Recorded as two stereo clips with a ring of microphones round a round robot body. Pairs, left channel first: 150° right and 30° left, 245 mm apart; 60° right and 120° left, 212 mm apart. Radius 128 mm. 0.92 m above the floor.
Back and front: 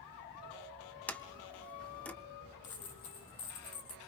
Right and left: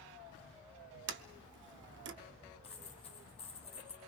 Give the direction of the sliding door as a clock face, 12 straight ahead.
8 o'clock.